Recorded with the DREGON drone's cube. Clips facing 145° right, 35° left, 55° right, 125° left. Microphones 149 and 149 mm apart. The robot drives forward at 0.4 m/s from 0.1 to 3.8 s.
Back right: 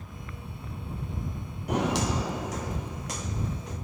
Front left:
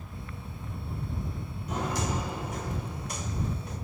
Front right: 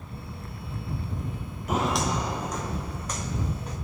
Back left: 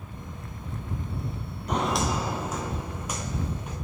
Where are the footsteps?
140° right, 0.7 m; by 3.8 s 155° right, 3 m.